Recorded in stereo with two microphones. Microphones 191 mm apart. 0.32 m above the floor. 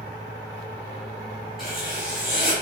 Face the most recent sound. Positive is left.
turn(degrees=0)  # may be behind; listen again after turning